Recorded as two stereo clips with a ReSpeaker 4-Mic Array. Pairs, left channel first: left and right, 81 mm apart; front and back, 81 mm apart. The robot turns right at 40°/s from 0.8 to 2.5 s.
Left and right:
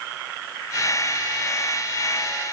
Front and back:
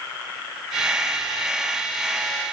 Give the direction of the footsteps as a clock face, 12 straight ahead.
I don't hear footsteps.